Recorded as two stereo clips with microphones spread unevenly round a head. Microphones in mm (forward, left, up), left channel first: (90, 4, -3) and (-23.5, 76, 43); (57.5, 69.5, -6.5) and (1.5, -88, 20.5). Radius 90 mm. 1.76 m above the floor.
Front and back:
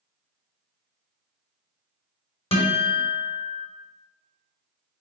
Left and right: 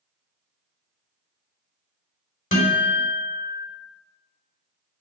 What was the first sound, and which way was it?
A guitar, 25° left.